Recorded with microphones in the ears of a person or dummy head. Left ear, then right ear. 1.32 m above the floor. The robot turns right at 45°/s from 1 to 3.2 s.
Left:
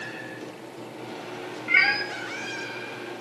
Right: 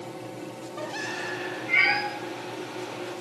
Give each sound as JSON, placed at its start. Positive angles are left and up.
{"t": 1.7, "sound": "a cat meowing", "side_deg": 60, "distance_m": 0.9}